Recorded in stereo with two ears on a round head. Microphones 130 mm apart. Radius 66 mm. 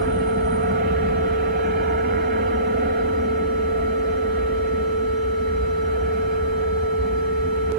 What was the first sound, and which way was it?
An aircraft, 65° right (ahead or behind).